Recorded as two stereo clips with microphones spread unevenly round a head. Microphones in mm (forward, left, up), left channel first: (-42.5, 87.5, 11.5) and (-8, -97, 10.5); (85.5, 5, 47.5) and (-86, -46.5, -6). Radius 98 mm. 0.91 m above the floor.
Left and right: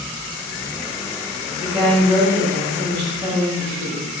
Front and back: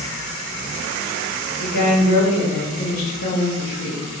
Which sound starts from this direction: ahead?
A woman speaking, at 1.6 s.